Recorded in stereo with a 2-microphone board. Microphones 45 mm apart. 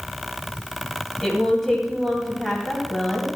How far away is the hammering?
I don't hear hammering.